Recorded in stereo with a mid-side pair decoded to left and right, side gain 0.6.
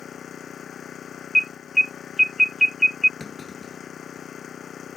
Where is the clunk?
20° left.